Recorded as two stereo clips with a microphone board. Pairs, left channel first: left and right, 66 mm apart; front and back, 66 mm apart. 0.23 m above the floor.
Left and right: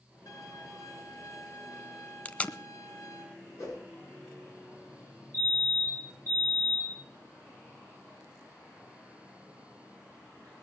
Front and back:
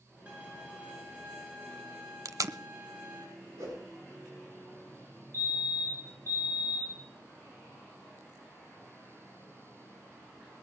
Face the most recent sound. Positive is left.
turn(degrees=140)